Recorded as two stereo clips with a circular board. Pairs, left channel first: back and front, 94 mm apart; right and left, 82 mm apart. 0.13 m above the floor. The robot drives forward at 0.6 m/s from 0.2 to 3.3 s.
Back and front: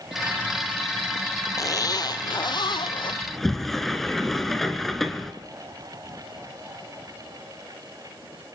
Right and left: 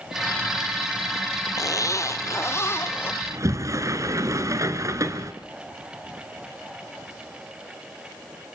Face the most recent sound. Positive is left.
turn(degrees=95)